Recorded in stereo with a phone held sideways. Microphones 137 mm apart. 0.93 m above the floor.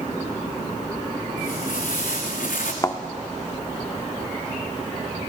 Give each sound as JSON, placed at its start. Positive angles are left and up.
{"t": 1.4, "sound": "footsteps", "side_deg": 80, "distance_m": 4.5}
{"t": 2.8, "sound": "a thud", "side_deg": 25, "distance_m": 0.8}